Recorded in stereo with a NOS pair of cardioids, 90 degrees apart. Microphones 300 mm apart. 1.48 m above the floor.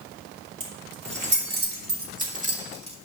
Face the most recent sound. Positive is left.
turn(degrees=-20)